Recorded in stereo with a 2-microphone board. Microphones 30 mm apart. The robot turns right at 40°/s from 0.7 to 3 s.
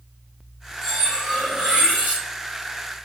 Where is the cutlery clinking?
165° right, 1.2 m; by 2.2 s 110° right, 1.2 m.